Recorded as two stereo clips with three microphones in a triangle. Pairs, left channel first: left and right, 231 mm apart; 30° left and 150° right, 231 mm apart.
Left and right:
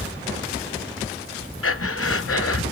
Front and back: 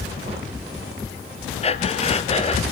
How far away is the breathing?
About 1.0 m.